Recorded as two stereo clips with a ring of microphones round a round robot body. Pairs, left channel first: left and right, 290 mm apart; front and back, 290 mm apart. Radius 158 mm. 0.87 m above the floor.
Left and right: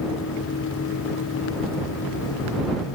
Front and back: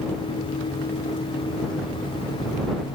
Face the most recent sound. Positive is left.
No sound to turn to.